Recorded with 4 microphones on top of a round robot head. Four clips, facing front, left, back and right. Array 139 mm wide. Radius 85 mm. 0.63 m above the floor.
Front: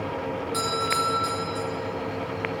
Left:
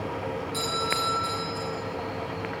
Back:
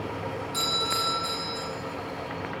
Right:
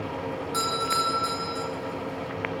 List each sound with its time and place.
0.5 s a doorbell: 55° right, 10 m